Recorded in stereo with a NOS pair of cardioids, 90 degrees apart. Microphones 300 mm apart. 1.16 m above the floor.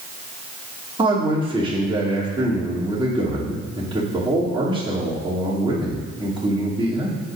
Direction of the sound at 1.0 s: 15° right.